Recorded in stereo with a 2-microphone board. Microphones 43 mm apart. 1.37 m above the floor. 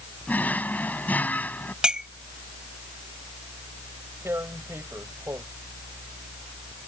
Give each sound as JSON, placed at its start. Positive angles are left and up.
{"t": 0.3, "sound": "a drawer", "side_deg": 40}
{"t": 1.8, "sound": "a clink", "side_deg": -20}
{"t": 4.2, "sound": "tearing paper", "side_deg": -90}